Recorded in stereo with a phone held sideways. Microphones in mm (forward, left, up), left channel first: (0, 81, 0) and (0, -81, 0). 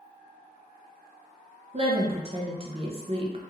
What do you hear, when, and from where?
1.7 s a woman speaking: 40° right (ahead or behind), 0.6 m